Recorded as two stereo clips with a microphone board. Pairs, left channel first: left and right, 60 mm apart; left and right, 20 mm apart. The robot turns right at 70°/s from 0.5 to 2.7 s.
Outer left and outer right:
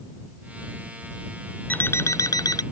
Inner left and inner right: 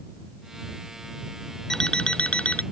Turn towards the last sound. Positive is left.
turn(degrees=100)